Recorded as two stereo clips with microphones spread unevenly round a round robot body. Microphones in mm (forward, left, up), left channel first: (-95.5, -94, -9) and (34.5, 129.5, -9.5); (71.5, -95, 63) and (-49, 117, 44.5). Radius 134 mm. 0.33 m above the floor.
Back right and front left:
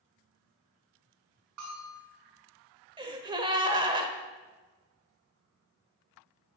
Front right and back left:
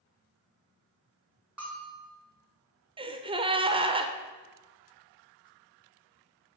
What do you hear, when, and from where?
1.6 s a bell: 35° left, 4 m
3.0 s a gasp: 105° left, 1.0 m